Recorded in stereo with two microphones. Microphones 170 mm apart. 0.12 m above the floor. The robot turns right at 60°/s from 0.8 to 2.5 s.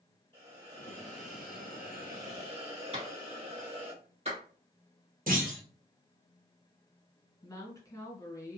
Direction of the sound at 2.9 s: 40° right (ahead or behind).